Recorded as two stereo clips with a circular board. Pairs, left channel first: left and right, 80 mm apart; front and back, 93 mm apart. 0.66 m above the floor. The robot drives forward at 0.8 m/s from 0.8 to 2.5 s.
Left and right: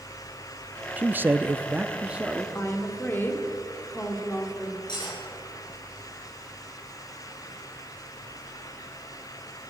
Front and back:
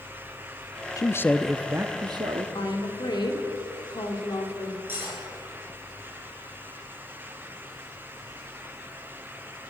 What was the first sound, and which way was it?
A man speaking, 25° right.